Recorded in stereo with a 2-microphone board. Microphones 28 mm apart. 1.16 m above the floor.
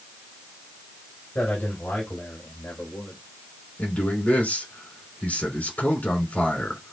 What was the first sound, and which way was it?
A man speaking, 85° left.